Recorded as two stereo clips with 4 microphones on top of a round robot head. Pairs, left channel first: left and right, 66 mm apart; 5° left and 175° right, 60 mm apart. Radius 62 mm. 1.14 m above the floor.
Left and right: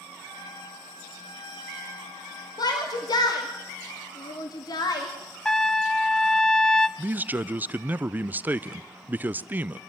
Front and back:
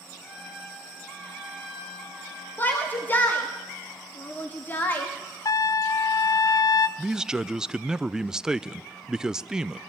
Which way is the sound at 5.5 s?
10° left.